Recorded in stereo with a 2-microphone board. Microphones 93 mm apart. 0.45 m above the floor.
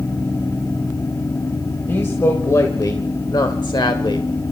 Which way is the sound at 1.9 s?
25° left (ahead or behind).